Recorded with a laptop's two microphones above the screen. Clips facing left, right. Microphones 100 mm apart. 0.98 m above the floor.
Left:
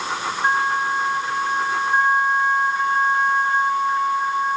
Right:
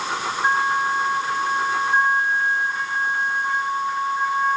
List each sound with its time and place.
Only background noise.